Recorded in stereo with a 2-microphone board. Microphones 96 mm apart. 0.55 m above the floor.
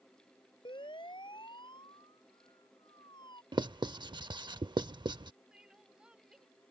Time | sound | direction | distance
0.7 | a siren | 60° left (ahead or behind) | ?
3.5 | writing | 50° right (ahead or behind) | ?
5.5 | crying | 10° right (ahead or behind) | ?